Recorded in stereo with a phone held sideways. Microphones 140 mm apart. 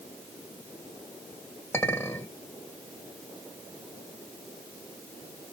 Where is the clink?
15° left (ahead or behind), 1.5 m.